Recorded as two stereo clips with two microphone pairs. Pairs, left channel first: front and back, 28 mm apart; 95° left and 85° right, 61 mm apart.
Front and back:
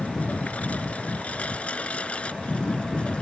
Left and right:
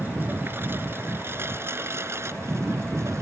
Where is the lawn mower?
30° right; by 3.2 s 50° right.